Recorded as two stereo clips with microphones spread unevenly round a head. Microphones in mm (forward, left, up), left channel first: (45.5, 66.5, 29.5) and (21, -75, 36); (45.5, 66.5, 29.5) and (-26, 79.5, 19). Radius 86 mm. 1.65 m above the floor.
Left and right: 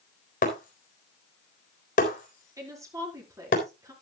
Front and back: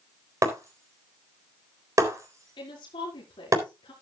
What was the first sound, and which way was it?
Breaking glass, 125° left.